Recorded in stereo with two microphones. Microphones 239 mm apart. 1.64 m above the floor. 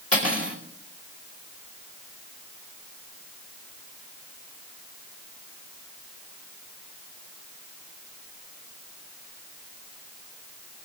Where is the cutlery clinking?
75° left (ahead or behind), 4 m.